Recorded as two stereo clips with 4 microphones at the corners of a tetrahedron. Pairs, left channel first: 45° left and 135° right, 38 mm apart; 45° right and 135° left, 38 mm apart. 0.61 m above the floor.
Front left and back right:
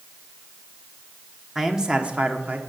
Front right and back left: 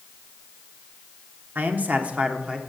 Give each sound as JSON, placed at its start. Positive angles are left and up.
{"t": 1.6, "sound": "a man speaking", "azimuth_deg": 145, "distance_m": 1.2}